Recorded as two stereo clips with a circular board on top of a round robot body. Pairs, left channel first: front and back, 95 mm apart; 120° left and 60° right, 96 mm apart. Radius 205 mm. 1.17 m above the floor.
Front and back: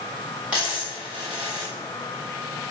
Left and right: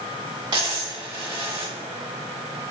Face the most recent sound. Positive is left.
turn(degrees=-105)